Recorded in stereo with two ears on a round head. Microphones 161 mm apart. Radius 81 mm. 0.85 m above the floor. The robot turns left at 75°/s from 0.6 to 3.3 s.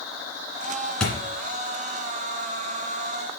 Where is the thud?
5° left (ahead or behind), 2 m; by 1.1 s 5° right (ahead or behind), 2 m.